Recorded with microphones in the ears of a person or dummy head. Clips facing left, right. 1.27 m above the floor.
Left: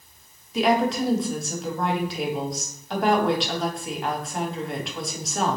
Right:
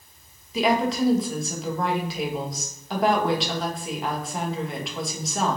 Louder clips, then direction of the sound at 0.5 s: Left 1 dB; 5° right (ahead or behind).